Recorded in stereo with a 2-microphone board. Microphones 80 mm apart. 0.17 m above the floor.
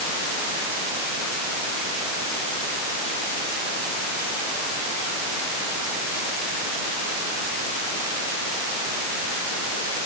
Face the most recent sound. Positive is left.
No sound to turn to.